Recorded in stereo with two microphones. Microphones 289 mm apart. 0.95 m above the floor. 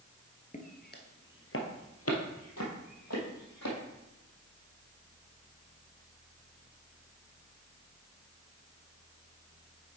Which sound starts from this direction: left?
Footsteps, at 0.5 s.